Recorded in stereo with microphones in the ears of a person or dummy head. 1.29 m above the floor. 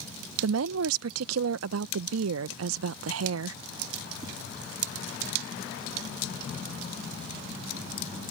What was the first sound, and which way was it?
A woman speaking, 85° right.